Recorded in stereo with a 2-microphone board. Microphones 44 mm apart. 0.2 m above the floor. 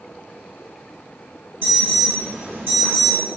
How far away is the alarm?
About 1.7 m.